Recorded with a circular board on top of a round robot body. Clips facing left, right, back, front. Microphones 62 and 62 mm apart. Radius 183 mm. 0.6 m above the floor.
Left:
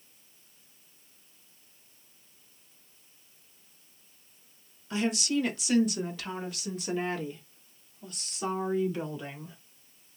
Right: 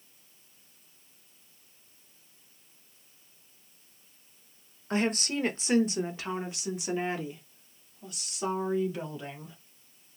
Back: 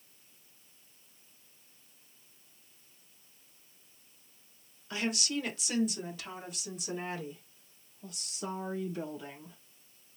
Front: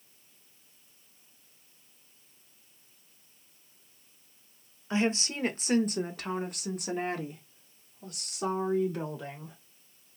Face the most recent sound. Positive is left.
turn(degrees=0)